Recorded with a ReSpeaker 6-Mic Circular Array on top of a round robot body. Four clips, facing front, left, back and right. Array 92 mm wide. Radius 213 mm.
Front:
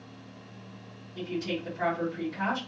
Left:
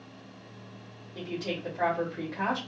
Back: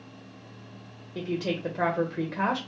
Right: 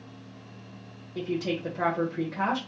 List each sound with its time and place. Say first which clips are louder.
1.1 s a woman speaking: right 5 dB, back 3 dB; 170° right, 1.1 m